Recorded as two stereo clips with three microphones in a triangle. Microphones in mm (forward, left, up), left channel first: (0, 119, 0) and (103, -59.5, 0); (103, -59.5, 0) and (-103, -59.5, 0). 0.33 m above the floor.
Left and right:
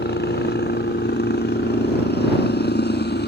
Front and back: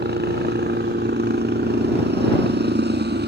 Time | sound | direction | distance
0.0 | a helicopter | 150° left | ?